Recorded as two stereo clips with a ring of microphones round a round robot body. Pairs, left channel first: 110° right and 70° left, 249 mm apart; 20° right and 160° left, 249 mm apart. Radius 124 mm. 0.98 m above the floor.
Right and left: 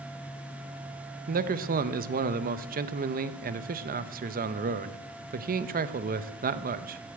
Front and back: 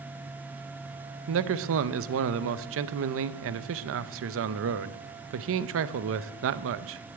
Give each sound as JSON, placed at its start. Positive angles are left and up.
{"t": 1.3, "sound": "a man speaking", "azimuth_deg": 125, "distance_m": 0.7}